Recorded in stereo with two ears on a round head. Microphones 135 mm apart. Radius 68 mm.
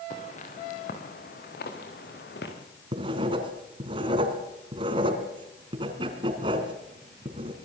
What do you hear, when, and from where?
0.1 s footsteps: 50° left (ahead or behind), 5.5 m; by 2.5 s 80° left, 7 m
2.9 s writing: 35° right (ahead or behind), 3.5 m